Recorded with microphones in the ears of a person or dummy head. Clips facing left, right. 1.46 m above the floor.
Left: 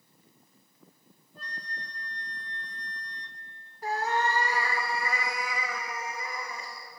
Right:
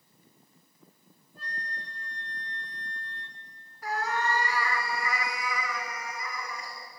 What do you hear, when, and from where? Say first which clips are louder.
1.4 s a flute: right 2 dB; 10° right (ahead or behind), 1.7 m
3.8 s a cat meowing: left 2 dB; 25° left (ahead or behind), 1.7 m